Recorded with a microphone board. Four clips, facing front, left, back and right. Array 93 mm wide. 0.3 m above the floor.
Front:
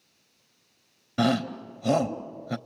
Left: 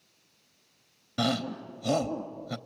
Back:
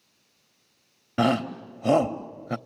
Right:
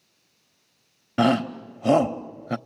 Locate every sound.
1.2 s a shout: 120° right, 1.0 m